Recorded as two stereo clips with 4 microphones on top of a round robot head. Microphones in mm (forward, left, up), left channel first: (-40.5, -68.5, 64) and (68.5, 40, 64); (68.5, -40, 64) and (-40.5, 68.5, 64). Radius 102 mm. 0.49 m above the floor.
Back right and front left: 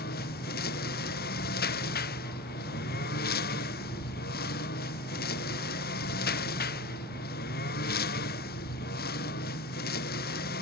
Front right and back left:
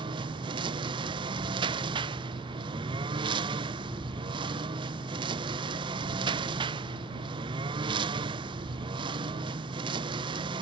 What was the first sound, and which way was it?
A lawn mower, 165° right.